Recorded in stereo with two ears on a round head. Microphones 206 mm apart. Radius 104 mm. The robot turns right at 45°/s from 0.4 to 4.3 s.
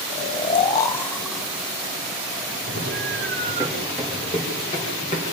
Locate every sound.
0.1 s snoring: 25° left (ahead or behind), 1.2 m; by 3.7 s 45° right (ahead or behind), 1.2 m
2.7 s running footsteps: 55° right (ahead or behind), 8.5 m; by 5.2 s 25° left (ahead or behind), 7.5 m